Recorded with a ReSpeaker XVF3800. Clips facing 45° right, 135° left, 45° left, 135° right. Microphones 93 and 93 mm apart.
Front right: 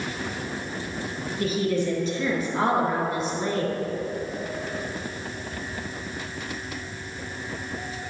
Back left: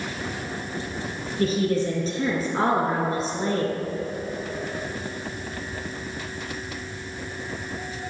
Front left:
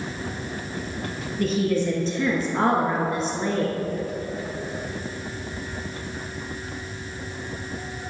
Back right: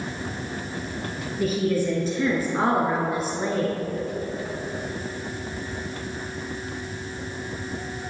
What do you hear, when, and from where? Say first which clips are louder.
1.4 s a woman speaking: back left 2 dB, front left 1 dB; 150° left, 1.2 m